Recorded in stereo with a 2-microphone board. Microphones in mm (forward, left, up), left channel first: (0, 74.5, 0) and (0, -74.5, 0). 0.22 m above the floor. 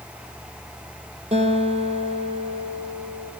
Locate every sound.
1.3 s a guitar: 45° right (ahead or behind), 4 m